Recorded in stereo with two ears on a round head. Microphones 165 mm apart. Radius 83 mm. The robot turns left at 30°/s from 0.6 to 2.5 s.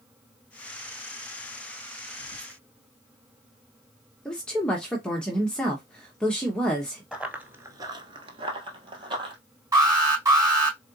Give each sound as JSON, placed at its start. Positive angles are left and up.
{"t": 2.2, "sound": "whispering", "side_deg": -75, "distance_m": 1.8}
{"t": 4.2, "sound": "a woman speaking", "side_deg": 5, "distance_m": 1.0}
{"t": 7.1, "sound": "running footsteps", "side_deg": -5, "distance_m": 1.3}
{"t": 9.7, "sound": "an alarm", "side_deg": -20, "distance_m": 4.0}